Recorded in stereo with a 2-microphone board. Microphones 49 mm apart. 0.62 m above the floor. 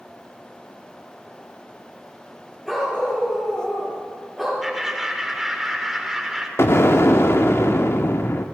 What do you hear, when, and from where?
2.6 s a dog barking: 5° left (ahead or behind), 6 m
4.6 s laughter: 5° right (ahead or behind), 1.7 m
6.6 s an explosion: 55° left (ahead or behind), 0.7 m